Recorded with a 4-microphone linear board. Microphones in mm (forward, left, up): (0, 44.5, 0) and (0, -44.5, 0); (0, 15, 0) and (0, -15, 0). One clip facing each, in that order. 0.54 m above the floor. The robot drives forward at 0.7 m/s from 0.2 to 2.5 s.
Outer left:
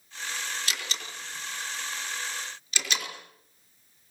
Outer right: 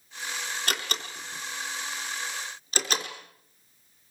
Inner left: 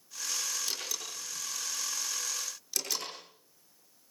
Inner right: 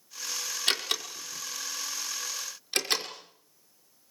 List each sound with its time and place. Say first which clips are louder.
0.7 s a door slam: outer right 4 dB, inner right 8 dB; 50° right (ahead or behind), 4.5 m; by 3.1 s 40° right (ahead or behind), 5.5 m